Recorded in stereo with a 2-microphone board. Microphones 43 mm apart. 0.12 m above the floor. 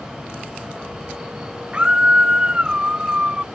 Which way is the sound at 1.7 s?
25° right (ahead or behind).